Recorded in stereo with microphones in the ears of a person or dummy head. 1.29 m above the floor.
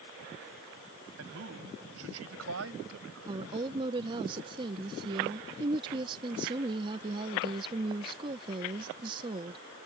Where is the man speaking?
75° right (ahead or behind).